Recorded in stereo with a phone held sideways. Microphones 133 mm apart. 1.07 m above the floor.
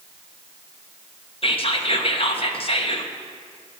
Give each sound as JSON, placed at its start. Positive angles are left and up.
{"t": 1.4, "sound": "whispering", "side_deg": 45, "distance_m": 0.9}